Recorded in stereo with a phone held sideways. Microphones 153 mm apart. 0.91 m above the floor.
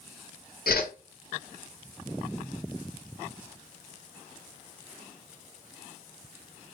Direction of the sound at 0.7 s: 80° left.